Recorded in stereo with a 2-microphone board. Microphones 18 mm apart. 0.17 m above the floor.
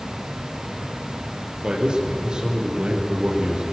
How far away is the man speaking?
About 5 m.